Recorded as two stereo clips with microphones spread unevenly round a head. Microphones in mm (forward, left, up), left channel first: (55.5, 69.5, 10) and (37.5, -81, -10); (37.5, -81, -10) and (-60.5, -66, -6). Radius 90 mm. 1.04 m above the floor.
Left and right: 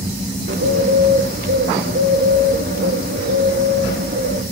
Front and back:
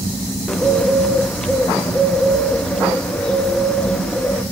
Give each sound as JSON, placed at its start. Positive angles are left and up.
{"t": 0.5, "sound": "a bird", "azimuth_deg": -90, "distance_m": 1.7}